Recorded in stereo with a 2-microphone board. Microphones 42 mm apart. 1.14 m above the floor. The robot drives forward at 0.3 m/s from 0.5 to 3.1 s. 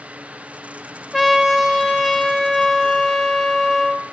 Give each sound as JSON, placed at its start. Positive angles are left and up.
{"t": 1.1, "sound": "a trumpet", "side_deg": 5, "distance_m": 1.1}